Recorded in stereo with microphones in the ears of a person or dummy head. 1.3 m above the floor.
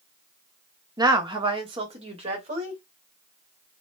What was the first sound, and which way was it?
A woman speaking, 20° right (ahead or behind).